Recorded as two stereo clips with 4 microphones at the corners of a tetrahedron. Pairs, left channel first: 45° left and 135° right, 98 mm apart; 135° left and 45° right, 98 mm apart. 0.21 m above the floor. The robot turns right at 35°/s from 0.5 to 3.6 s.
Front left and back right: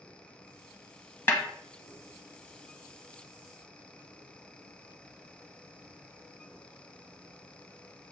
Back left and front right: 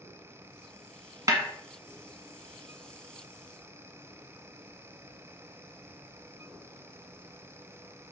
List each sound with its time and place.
1.3 s a snare drum: 15° right, 0.9 m; by 1.4 s 10° right, 0.9 m